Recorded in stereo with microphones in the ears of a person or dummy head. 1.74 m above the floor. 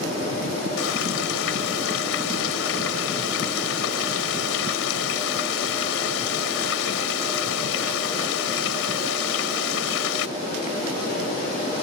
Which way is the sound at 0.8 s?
85° left.